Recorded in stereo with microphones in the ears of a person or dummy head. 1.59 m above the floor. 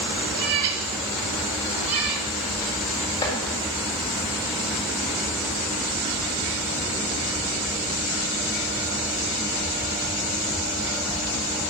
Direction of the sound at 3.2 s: 20° left (ahead or behind).